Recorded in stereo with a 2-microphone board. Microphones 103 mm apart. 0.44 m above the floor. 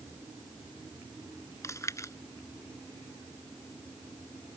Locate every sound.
1.6 s chewing: 30° left (ahead or behind)